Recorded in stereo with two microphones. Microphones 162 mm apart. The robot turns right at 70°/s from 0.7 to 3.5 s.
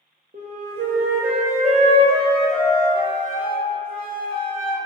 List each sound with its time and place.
0.3 s a flute: 125° right, 0.6 m; by 4.8 s 70° left, 0.6 m